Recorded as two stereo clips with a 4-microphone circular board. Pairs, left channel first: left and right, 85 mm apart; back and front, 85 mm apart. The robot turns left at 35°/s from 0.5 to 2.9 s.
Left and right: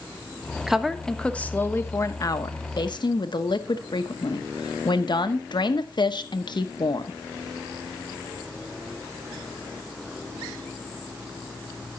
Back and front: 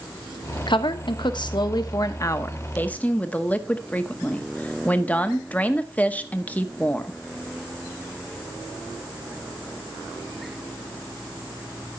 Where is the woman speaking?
175° right, 1.0 m; by 7.2 s 110° left, 1.0 m.